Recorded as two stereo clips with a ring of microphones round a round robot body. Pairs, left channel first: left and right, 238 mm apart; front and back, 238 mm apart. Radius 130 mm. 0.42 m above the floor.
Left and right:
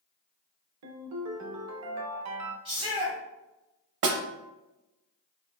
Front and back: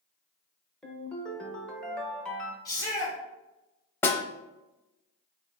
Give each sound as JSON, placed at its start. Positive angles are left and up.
{"t": 0.8, "sound": "a ringtone", "azimuth_deg": -85, "distance_m": 0.6}
{"t": 2.6, "sound": "a shout", "azimuth_deg": -55, "distance_m": 1.3}
{"t": 4.0, "sound": "a snare drum", "azimuth_deg": -80, "distance_m": 0.6}